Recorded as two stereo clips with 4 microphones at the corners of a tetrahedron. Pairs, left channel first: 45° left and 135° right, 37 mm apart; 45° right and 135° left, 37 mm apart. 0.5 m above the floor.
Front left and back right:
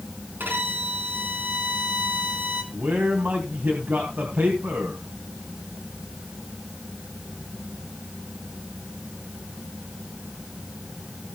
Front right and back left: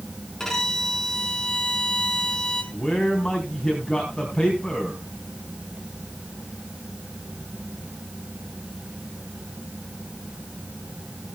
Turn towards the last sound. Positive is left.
turn(degrees=-120)